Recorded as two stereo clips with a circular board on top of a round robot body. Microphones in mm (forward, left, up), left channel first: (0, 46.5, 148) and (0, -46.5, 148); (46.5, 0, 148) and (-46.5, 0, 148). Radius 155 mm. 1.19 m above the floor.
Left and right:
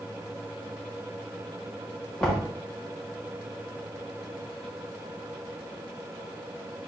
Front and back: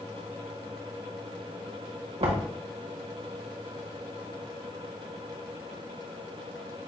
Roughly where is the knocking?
Behind.